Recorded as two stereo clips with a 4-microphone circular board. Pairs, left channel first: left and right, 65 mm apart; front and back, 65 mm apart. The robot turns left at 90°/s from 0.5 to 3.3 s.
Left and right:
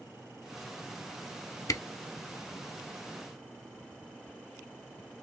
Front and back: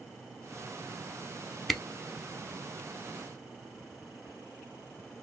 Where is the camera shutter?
85° left, 0.5 m; by 1.8 s 75° left, 0.5 m.